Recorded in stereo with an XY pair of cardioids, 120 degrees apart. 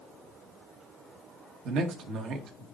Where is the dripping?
No dripping in this recording.